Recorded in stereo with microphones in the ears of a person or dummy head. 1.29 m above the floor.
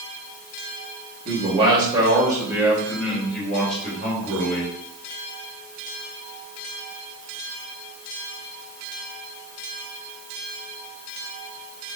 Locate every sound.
1.2 s a man speaking: 35° right (ahead or behind), 3 m; by 4.7 s 20° left (ahead or behind), 3.5 m